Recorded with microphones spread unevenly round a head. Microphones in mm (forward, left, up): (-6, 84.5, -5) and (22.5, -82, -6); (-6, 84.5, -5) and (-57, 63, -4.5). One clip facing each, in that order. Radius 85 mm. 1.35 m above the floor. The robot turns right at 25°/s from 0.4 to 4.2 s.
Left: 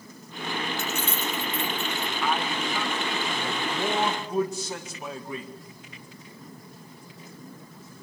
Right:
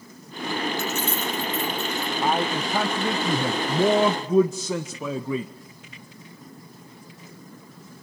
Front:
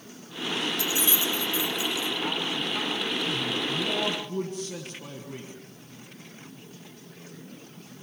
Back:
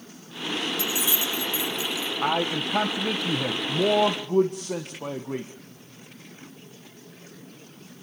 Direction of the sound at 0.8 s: 115° left.